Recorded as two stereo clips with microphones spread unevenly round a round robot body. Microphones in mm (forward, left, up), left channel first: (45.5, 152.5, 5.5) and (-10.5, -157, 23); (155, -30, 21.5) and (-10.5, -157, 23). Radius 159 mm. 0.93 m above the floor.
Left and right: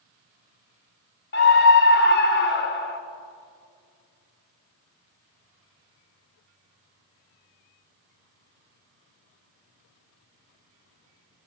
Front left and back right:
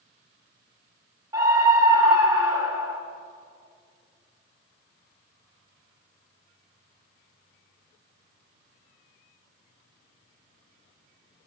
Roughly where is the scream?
Behind left.